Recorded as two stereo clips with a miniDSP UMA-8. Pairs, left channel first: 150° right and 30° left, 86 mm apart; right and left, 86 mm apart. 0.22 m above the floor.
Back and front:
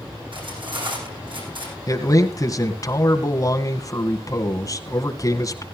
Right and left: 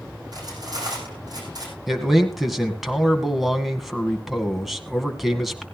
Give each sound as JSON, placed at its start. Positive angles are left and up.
{"t": 0.3, "sound": "cutlery clinking", "azimuth_deg": 50, "distance_m": 7.0}
{"t": 1.9, "sound": "a man speaking", "azimuth_deg": 175, "distance_m": 2.0}